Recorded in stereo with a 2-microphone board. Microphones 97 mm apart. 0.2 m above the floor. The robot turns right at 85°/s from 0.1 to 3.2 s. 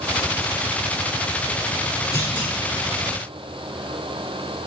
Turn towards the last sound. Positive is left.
turn(degrees=-60)